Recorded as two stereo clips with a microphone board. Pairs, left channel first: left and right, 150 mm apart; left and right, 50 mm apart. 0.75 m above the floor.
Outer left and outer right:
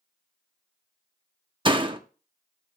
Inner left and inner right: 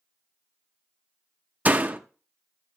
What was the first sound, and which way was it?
A door slam, 35° right (ahead or behind).